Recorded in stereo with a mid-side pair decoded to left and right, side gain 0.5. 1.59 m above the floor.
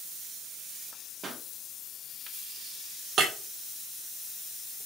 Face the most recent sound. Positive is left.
turn(degrees=-60)